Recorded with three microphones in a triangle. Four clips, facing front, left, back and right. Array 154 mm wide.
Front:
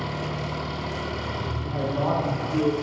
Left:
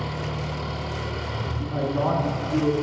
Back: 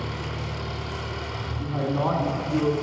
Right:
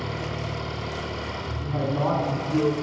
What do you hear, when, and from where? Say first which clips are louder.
0.0 s an engine running: left 1 dB, front 3 dB; 5° right, 1.9 m
1.6 s a man speaking: left 1 dB, back 2 dB; 175° left, 1.5 m